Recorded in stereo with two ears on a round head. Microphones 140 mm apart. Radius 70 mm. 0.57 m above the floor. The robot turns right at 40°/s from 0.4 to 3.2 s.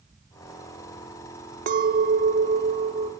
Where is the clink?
95° right, 0.6 m; by 3.1 s 35° right, 0.6 m.